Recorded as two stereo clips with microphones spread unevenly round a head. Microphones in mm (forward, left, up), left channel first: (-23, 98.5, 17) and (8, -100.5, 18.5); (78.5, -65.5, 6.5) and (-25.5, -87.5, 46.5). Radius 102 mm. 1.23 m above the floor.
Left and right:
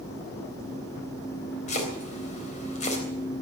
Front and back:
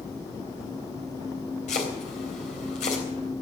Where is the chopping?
40° left, 3.5 m.